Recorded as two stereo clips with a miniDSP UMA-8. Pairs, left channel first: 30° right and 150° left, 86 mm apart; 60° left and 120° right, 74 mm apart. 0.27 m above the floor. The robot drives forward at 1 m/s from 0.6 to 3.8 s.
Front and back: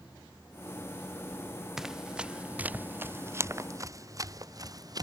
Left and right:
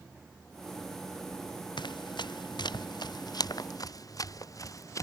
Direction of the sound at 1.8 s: 65° left.